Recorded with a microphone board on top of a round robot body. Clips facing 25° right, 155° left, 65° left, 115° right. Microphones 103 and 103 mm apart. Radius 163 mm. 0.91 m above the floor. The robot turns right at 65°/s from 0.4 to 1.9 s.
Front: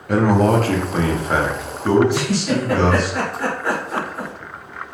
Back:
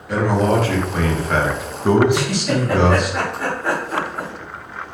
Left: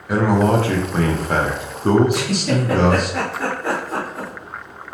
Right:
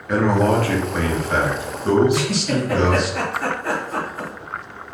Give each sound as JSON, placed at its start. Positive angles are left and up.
{"t": 0.1, "sound": "a man speaking", "azimuth_deg": -10, "distance_m": 0.9}
{"t": 2.1, "sound": "a giggle", "azimuth_deg": 65, "distance_m": 1.0}